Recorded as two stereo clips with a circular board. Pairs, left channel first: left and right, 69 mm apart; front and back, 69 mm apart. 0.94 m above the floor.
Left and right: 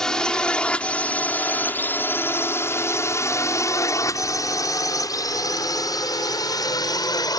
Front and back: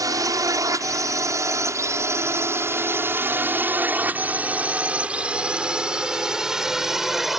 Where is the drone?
170° left; by 7.4 s 95° left.